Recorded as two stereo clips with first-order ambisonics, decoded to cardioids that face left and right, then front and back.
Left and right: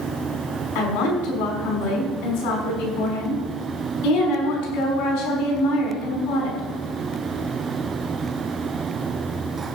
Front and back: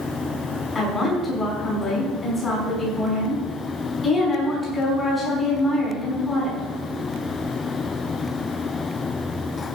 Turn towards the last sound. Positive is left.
turn(degrees=75)